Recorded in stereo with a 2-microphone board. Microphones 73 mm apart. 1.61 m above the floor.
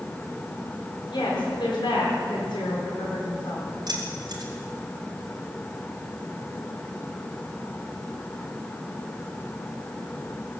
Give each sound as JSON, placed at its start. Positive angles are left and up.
{"t": 1.1, "sound": "a woman speaking", "side_deg": 85, "distance_m": 4.5}
{"t": 3.9, "sound": "keys jangling", "side_deg": -65, "distance_m": 3.5}